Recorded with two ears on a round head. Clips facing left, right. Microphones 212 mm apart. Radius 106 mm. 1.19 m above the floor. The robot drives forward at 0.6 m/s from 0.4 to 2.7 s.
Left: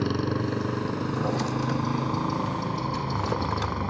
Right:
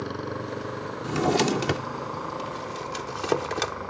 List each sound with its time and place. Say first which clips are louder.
0.0 s a motorcycle: left 6 dB; 40° left (ahead or behind); by 3.9 s 55° left (ahead or behind)
1.0 s a drawer: right 4 dB; 85° right; by 3.8 s 65° right (ahead or behind)